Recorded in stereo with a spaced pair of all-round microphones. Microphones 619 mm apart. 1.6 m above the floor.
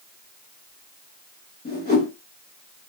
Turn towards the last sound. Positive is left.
turn(degrees=15)  # may be behind; listen again after turning